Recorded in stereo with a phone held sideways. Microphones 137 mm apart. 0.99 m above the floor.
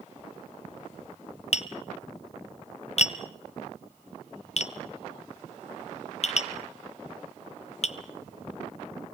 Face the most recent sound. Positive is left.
turn(degrees=50)  # may be behind; listen again after turning